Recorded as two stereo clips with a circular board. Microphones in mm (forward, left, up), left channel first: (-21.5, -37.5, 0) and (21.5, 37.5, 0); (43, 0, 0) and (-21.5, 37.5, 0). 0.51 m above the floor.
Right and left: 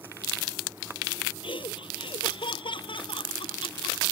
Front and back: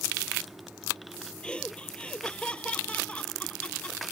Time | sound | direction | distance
1.4 | laughter | 105° right | ?